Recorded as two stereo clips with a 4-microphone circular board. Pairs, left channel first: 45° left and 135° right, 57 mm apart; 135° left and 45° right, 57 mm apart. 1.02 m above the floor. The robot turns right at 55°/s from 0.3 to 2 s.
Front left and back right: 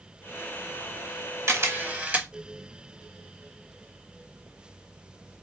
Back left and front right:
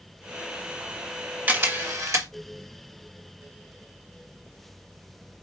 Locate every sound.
1.5 s a camera shutter: 105° right, 1.2 m; by 2.3 s 75° right, 1.2 m